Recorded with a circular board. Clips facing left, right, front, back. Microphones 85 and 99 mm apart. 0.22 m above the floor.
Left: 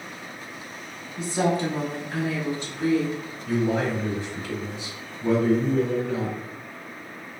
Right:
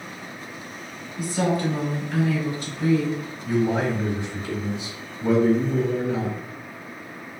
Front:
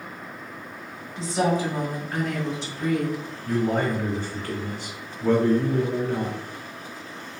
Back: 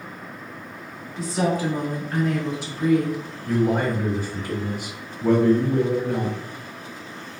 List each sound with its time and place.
1.2 s a woman speaking: 40° left, 1.7 m; by 3.2 s 140° left, 1.5 m
3.5 s a man speaking: 125° right, 1.0 m